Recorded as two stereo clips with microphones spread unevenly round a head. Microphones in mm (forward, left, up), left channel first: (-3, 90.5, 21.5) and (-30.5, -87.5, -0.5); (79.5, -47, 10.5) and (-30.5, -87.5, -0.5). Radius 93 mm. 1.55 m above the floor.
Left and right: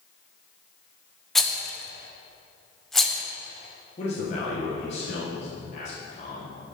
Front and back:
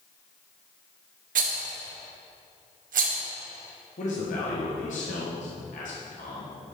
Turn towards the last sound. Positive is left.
turn(degrees=25)